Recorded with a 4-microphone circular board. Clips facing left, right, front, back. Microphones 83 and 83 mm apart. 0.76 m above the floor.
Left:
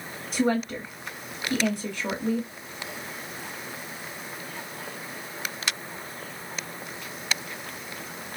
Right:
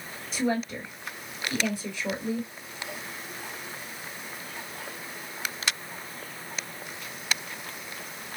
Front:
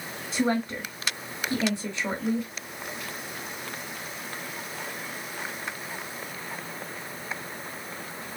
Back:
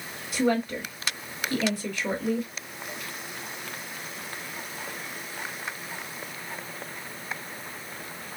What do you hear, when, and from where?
0.3 s a woman speaking: 60° left, 1.5 m